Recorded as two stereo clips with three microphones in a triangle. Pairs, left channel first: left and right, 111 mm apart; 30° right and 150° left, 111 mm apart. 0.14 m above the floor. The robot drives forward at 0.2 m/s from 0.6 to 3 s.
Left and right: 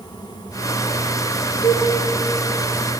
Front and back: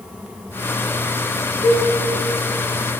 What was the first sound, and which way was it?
A cowbell, 145° left.